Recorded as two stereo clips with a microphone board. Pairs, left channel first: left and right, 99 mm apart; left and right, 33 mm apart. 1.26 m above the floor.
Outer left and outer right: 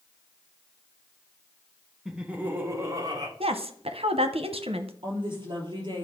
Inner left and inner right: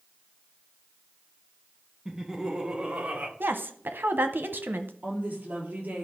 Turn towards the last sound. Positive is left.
turn(degrees=-50)  # may be behind; listen again after turning